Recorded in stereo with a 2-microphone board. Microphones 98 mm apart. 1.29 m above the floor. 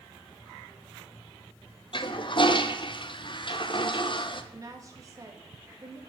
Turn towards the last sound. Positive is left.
turn(degrees=-35)  # may be behind; listen again after turning